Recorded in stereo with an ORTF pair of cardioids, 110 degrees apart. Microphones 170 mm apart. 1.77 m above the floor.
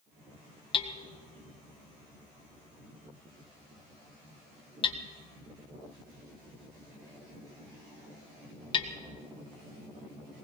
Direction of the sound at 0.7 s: 30° left.